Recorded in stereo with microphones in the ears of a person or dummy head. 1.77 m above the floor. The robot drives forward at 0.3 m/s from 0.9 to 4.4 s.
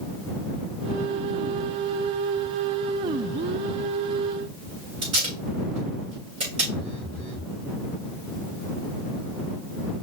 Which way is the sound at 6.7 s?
5° left (ahead or behind).